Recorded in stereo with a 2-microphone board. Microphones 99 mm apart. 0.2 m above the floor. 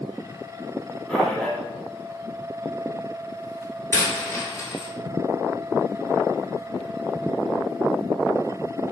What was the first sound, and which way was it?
A man speaking, 5° left (ahead or behind).